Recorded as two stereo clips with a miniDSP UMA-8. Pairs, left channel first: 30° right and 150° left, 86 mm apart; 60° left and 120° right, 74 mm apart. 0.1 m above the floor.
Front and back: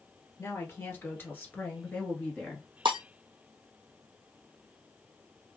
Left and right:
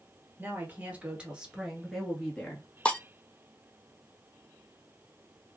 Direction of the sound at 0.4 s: 75° right.